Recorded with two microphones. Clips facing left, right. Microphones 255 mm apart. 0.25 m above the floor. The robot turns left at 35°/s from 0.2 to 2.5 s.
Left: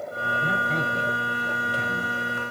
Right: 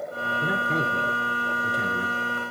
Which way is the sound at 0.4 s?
55° right (ahead or behind).